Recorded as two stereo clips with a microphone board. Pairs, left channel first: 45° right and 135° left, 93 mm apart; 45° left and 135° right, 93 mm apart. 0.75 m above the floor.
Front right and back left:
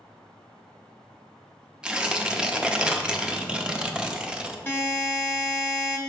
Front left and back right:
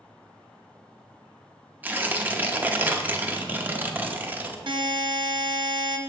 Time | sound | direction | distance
1.8 | tearing paper | 160° right | 0.6 m
4.7 | a buzzer | 115° right | 0.8 m